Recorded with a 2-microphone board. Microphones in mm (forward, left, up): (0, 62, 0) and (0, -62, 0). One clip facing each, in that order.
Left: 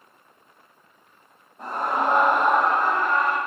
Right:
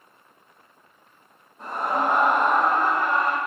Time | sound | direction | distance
1.6 | a scream | 45° left (ahead or behind) | 1.7 m